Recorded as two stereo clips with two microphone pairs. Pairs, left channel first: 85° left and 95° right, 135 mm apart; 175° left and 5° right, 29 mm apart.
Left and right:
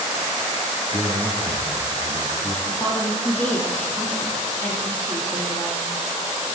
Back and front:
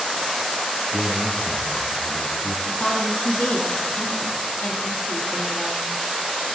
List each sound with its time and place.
0.9 s a man speaking: 120° left, 6 m; by 2.5 s 130° left, 6 m
2.6 s a woman speaking: 165° left, 9.5 m